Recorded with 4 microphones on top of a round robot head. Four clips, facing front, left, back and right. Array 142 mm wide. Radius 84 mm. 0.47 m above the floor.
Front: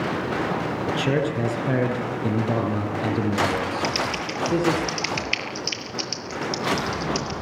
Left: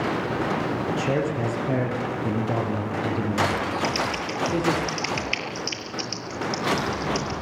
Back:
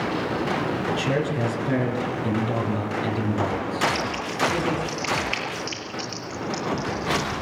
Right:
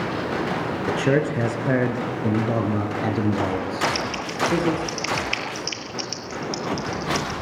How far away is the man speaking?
About 6 m.